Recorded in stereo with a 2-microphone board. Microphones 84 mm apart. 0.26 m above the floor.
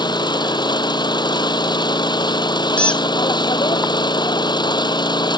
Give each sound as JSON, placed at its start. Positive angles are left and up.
{"t": 0.0, "sound": "an engine running", "side_deg": 60}
{"t": 2.8, "sound": "a squeak", "side_deg": 15}